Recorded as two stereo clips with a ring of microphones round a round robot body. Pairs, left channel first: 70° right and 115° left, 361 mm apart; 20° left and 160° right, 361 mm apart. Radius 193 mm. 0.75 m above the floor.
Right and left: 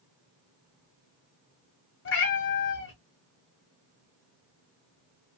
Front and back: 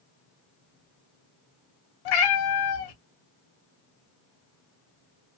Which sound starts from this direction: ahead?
A cat meowing, at 2.0 s.